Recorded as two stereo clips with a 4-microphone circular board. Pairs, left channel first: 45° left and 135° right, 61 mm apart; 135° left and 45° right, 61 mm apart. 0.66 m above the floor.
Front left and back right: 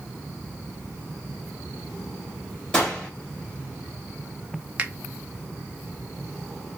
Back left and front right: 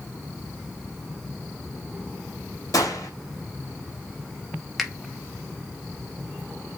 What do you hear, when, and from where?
2.7 s a gunshot: 120° left, 2 m
4.8 s a finger snap: 120° right, 0.7 m